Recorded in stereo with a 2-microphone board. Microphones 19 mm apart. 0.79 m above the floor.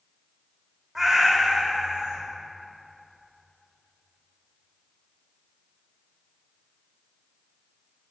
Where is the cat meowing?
25° right (ahead or behind), 1.2 m; by 2.2 s 70° right (ahead or behind), 1.8 m.